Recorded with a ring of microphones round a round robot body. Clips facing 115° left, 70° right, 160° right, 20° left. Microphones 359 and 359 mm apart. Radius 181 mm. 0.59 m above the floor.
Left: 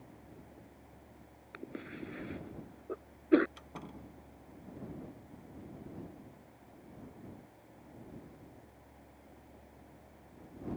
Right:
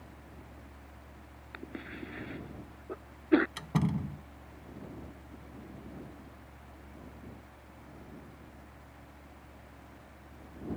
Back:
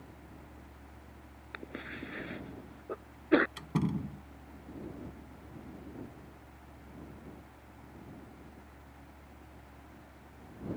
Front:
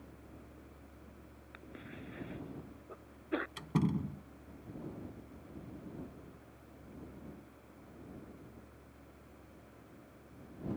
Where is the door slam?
65° right.